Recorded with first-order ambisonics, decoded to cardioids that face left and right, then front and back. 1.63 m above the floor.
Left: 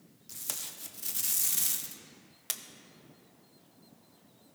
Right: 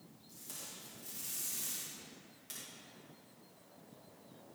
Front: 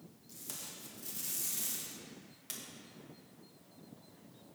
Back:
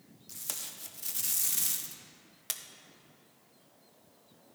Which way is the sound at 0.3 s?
125° left.